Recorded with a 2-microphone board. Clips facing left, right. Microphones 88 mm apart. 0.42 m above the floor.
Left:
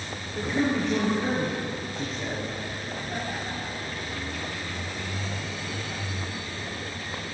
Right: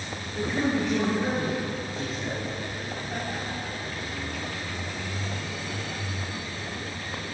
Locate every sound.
0.3 s a man speaking: 5° right (ahead or behind), 6.5 m